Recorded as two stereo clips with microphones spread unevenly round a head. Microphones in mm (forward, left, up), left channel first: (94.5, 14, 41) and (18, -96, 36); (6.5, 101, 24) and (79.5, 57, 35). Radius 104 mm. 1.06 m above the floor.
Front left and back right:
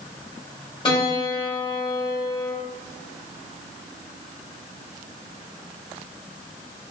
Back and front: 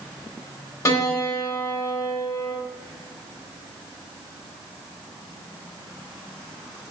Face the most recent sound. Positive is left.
turn(degrees=110)